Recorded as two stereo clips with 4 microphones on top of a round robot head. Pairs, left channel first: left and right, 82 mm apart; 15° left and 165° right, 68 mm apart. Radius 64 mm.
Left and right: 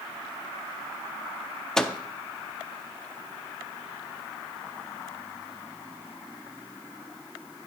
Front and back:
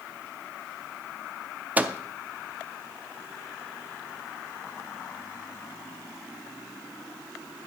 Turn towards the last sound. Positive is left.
turn(degrees=170)